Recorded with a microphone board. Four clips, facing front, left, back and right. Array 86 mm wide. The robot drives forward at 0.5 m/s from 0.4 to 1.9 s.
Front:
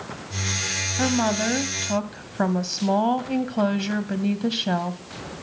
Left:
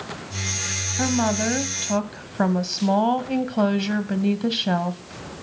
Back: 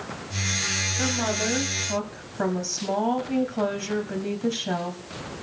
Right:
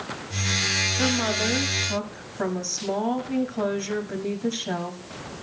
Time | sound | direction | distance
1.0 | a woman speaking | 40° left | 2.0 m